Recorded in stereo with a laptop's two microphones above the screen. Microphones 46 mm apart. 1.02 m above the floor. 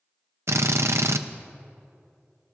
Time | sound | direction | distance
0.5 | a drill | 75° right (ahead or behind) | 0.6 m